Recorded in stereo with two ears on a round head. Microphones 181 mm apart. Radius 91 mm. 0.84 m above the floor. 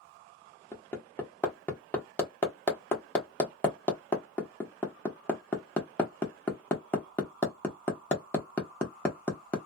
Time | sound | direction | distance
0.7 | hammering | 10° left (ahead or behind) | 0.7 m